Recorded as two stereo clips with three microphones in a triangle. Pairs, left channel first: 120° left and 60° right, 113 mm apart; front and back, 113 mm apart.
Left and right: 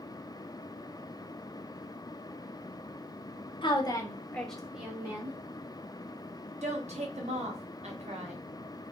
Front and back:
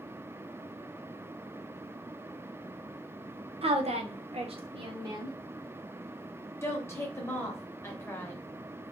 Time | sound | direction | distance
3.6 | a woman speaking | 155° left | 0.7 m
6.6 | a woman speaking | 70° right | 0.9 m